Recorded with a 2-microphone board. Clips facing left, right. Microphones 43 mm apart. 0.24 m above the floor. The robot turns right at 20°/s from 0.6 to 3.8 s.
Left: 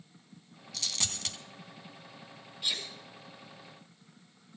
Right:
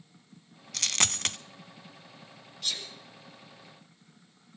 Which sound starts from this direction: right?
A dropped coin, at 0.7 s.